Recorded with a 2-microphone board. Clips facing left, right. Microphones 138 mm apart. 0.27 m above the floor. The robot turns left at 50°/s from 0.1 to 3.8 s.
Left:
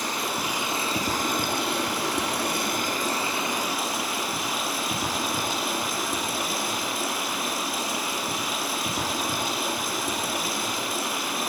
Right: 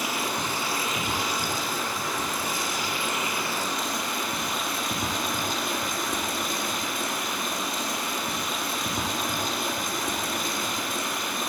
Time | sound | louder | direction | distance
0.0 | running water | even | 170° right | 3.5 m